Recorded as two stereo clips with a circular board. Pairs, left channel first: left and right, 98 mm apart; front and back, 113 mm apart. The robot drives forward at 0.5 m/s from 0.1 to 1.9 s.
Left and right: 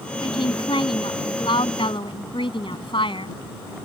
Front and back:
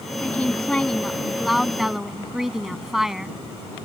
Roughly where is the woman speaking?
Left.